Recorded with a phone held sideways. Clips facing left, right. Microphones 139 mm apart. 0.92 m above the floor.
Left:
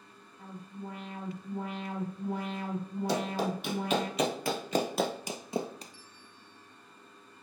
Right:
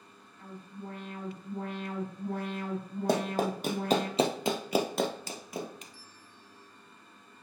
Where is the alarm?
10° left (ahead or behind), 4 m.